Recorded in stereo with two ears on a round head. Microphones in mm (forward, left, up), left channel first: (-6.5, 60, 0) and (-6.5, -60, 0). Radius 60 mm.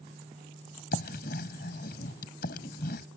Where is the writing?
75° left (ahead or behind).